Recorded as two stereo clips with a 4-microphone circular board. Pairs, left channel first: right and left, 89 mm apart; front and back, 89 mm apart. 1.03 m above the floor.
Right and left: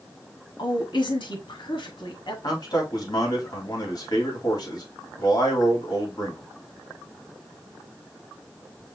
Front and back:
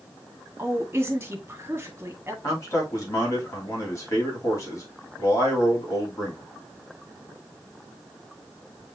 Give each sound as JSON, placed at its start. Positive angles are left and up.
{"t": 0.6, "sound": "a woman speaking", "azimuth_deg": -115, "distance_m": 1.7}
{"t": 2.4, "sound": "a man speaking", "azimuth_deg": -55, "distance_m": 3.0}